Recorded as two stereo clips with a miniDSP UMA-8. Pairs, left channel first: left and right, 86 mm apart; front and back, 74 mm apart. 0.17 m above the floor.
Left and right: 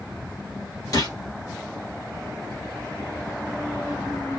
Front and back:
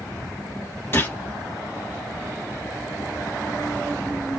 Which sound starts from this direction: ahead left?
A gunshot, at 0.9 s.